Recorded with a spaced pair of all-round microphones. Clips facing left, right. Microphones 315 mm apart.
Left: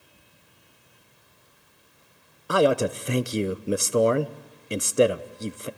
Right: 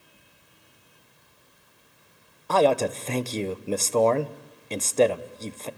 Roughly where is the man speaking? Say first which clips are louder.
Even; centre.